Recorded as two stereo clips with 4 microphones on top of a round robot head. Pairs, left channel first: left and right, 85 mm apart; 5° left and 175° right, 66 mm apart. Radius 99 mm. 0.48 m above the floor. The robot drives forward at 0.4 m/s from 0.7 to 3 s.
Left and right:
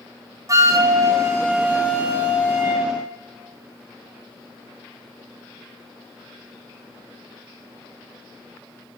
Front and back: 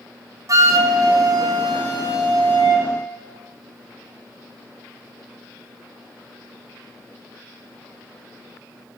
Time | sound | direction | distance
0.5 | a flute | 140° right | 0.6 m